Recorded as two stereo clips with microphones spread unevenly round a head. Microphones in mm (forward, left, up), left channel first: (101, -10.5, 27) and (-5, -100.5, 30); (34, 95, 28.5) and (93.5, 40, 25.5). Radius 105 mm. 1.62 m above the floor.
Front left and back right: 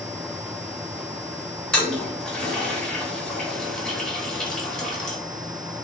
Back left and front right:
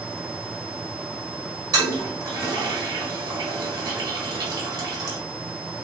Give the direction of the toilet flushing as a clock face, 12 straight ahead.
1 o'clock.